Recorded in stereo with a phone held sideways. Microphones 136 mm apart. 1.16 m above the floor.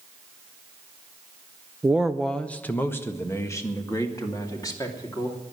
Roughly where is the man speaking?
Centre.